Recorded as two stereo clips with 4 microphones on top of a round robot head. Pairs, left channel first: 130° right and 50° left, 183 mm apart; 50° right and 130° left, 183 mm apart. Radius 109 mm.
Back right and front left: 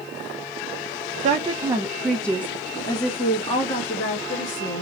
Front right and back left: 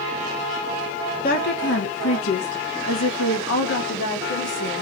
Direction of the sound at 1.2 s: 5° right.